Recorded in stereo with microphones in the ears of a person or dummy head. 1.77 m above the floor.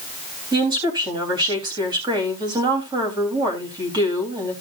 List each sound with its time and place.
0.5 s a woman speaking: 25° right (ahead or behind), 3.5 m